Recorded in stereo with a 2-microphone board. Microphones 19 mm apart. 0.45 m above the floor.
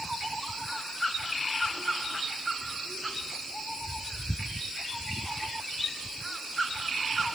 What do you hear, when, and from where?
Only background noise.